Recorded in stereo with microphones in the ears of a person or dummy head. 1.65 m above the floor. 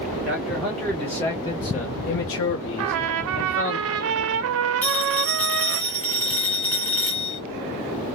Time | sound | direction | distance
0.2 | a man speaking | centre (ahead or behind) | 1.7 m
2.8 | a trumpet | 55° right (ahead or behind) | 0.6 m
4.8 | a phone ringing | 5° left (ahead or behind) | 2.5 m